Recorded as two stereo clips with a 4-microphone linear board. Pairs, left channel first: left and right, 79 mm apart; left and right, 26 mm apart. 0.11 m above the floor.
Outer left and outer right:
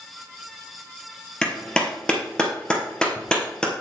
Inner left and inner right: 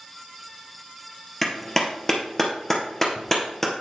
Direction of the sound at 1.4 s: 10° left (ahead or behind).